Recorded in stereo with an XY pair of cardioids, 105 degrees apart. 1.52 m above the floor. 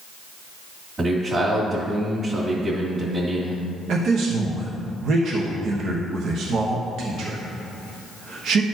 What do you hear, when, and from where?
1.0 s a man speaking: 35° right, 2 m
3.9 s a man speaking: 65° right, 1.1 m